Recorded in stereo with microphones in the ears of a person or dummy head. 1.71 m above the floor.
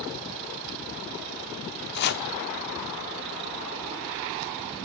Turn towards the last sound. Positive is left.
turn(degrees=55)  # may be behind; listen again after turning